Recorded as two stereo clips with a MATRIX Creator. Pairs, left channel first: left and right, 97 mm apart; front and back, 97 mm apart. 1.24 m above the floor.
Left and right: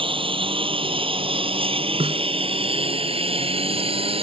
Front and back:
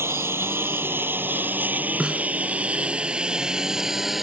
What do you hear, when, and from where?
0.0 s a lawn mower: 115° right; by 4.2 s 90° right
2.0 s a snare drum: 95° right